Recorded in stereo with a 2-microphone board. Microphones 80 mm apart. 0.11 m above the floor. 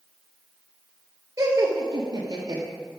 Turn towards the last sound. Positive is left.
turn(degrees=-45)  # may be behind; listen again after turning